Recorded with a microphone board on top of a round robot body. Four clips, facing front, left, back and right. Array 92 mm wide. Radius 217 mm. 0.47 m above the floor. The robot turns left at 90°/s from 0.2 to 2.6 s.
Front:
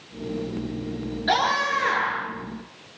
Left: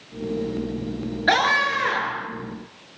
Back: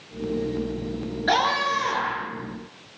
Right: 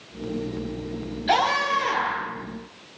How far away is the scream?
About 9.5 m.